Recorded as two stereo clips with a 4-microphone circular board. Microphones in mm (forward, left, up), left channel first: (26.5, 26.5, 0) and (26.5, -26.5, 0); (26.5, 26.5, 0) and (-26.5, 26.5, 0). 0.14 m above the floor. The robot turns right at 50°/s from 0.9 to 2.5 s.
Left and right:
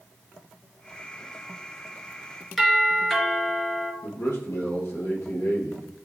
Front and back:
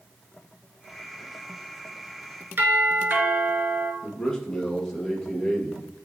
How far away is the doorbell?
About 2.5 m.